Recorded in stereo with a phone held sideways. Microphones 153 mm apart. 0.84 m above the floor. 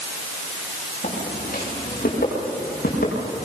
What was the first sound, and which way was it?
Footsteps, 70° left (ahead or behind).